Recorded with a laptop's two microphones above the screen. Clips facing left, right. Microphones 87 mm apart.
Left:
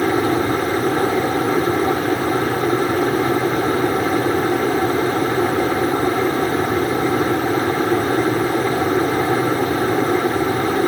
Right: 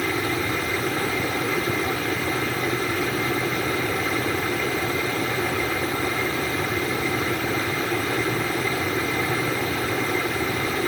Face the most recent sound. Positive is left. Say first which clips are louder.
# left 8 dB
turn(degrees=40)  # may be behind; listen again after turning